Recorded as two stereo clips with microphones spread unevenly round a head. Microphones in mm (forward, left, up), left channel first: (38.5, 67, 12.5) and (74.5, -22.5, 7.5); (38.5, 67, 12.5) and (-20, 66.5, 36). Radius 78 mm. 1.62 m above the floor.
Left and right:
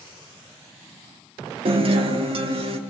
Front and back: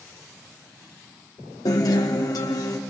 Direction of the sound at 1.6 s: 40° right.